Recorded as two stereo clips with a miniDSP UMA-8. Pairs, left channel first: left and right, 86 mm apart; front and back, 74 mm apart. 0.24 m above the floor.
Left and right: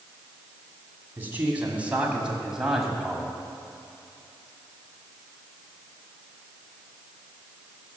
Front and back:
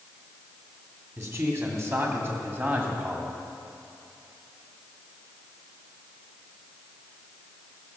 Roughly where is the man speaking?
Behind right.